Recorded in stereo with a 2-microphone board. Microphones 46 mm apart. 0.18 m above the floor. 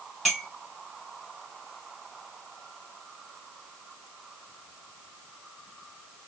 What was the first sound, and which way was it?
A clink, centre (ahead or behind).